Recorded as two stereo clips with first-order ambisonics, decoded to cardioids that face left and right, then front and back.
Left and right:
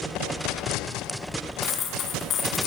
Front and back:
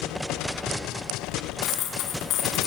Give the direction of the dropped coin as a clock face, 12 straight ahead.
11 o'clock.